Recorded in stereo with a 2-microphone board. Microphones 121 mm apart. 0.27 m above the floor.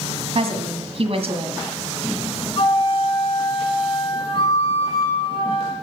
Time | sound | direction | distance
0.3 | a woman speaking | 55° right (ahead or behind) | 1.9 m
2.6 | a flute | 45° left (ahead or behind) | 5 m